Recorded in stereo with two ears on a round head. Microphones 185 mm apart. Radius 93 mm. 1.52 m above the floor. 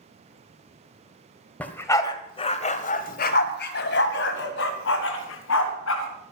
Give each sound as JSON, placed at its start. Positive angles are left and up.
{"t": 1.6, "sound": "a dog barking", "side_deg": 5, "distance_m": 1.8}